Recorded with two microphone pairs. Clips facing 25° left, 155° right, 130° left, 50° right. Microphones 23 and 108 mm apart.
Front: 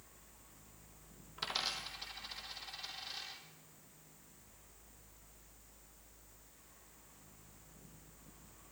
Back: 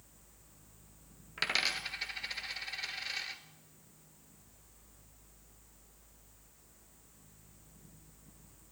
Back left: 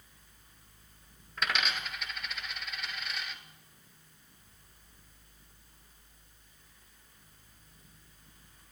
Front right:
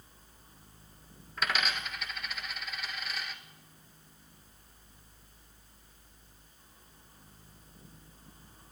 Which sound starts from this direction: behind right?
A dropped coin, at 1.4 s.